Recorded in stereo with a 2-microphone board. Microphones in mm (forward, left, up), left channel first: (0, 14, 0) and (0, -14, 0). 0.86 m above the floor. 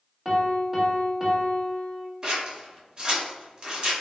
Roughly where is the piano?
Centre.